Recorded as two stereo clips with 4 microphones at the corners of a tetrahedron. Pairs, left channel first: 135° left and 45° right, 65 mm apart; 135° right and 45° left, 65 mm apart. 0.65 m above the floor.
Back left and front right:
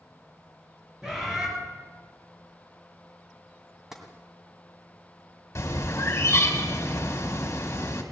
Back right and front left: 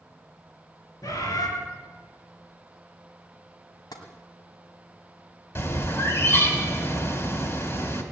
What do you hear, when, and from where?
1.0 s a bird: 125° right, 4 m
3.9 s tapping: 130° right, 2 m
5.5 s a bird: straight behind, 2 m